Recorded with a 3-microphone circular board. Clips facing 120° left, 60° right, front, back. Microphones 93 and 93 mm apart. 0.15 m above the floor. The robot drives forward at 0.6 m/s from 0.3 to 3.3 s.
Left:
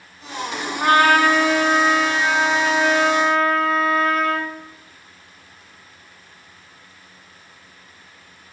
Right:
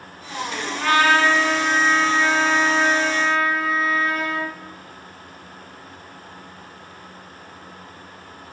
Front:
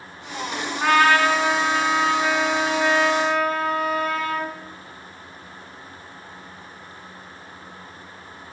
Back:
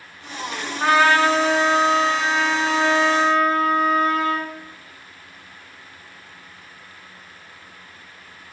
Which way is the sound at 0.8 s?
110° left.